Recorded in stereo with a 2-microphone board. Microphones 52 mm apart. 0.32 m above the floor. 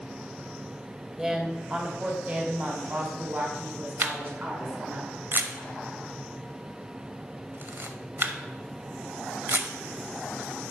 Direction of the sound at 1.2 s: 15° right (ahead or behind).